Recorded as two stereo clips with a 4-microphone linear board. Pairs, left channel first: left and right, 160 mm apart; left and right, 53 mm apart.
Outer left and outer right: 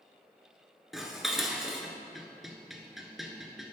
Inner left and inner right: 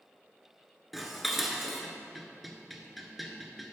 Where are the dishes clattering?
Centre (ahead or behind), 0.9 m.